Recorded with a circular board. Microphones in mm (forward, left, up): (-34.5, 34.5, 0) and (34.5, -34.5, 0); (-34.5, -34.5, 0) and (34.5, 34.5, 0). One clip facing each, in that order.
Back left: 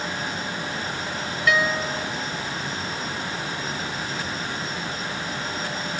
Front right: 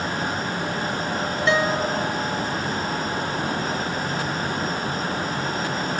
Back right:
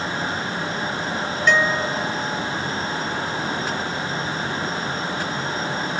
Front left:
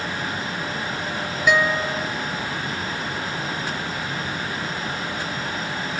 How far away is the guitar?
About 0.8 m.